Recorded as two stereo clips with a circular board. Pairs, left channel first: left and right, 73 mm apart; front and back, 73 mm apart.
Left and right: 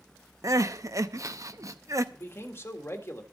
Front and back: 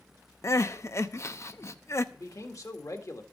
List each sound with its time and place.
0.4 s crying: 50° right, 0.8 m
2.1 s a man speaking: 35° left, 1.9 m